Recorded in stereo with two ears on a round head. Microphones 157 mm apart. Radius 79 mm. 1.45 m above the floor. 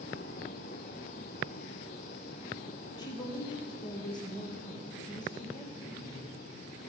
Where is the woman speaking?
25° left (ahead or behind), 1.6 m.